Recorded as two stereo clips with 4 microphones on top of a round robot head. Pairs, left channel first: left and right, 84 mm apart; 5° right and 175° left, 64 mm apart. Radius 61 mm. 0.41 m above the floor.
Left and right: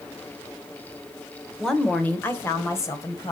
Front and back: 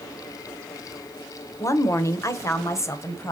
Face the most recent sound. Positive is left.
turn(degrees=40)